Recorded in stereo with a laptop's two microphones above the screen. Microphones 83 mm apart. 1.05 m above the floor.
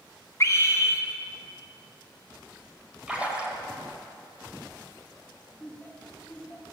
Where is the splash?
10° right (ahead or behind), 1.8 m.